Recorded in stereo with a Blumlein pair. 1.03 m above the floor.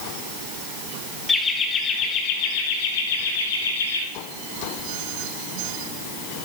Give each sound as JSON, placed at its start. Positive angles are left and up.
{"t": 1.3, "sound": "laughter", "azimuth_deg": 15, "distance_m": 2.0}